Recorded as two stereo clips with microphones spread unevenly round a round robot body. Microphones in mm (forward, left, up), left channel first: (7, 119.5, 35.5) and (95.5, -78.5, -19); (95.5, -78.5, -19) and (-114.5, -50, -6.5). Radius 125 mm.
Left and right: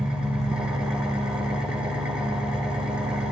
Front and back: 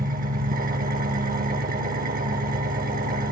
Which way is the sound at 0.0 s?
140° right.